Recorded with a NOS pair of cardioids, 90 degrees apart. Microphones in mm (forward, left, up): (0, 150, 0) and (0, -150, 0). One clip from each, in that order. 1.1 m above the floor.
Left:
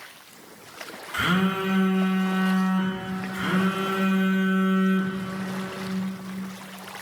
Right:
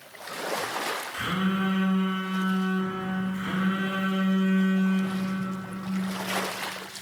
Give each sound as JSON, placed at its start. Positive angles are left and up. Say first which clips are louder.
{"t": 1.1, "sound": "a phone buzzing", "louder": "left 10 dB", "azimuth_deg": 50, "distance_m": 1.5}